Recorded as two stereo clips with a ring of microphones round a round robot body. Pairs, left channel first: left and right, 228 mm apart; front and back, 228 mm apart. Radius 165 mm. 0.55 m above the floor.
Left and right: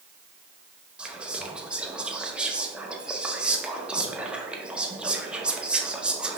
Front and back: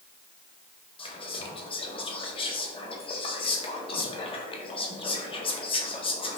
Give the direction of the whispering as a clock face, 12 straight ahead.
12 o'clock.